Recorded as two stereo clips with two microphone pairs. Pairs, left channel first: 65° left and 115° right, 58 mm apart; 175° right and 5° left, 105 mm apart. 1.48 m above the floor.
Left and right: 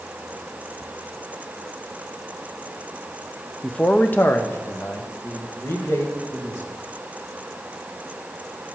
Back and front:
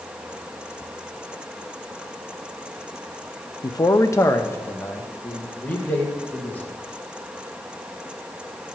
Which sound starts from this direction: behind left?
A man speaking, at 3.6 s.